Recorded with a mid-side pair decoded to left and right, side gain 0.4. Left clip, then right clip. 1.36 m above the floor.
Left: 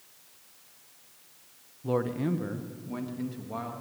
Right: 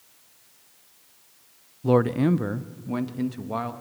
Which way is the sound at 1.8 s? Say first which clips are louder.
Right 8 dB; 65° right.